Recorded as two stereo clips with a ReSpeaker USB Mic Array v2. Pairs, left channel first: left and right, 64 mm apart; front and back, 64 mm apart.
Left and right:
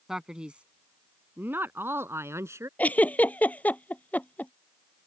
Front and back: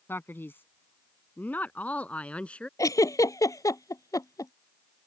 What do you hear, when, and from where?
0.1 s a man speaking: 10° right; by 2.7 s 70° right
2.8 s a giggle: 25° left